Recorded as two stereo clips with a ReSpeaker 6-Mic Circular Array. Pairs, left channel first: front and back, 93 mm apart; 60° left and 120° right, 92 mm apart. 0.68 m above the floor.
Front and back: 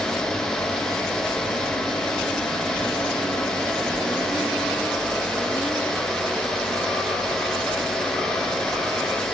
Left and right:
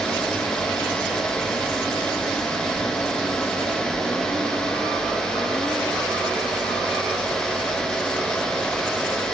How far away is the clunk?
No clunk in this recording.